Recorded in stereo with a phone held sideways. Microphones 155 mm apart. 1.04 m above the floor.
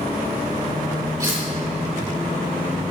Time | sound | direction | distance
1.2 | cutlery clinking | 25° right (ahead or behind) | 1.4 m